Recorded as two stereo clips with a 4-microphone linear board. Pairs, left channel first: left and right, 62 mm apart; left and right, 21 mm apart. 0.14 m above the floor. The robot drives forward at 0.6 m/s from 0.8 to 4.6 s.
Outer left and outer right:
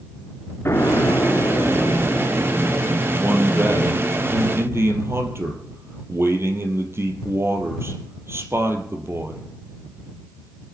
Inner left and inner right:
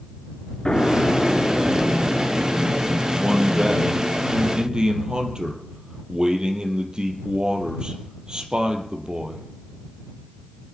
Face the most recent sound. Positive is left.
turn(degrees=-45)  # may be behind; listen again after turning